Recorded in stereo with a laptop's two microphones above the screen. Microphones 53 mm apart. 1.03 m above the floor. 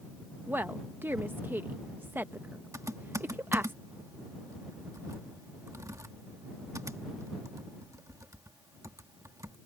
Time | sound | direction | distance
0.5 | a woman speaking | 40° right (ahead or behind) | ?
2.7 | typing on a keyboard | 80° right | ?